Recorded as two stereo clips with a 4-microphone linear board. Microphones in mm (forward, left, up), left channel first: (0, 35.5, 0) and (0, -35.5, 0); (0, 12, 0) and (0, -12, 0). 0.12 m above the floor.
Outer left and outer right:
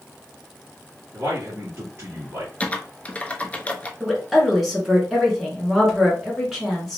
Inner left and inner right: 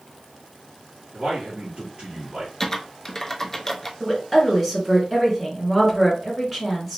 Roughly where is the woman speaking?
Centre.